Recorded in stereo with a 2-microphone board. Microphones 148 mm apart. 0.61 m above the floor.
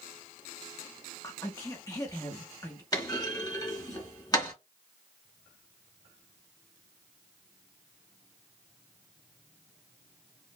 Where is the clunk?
25° left (ahead or behind), 1.0 m.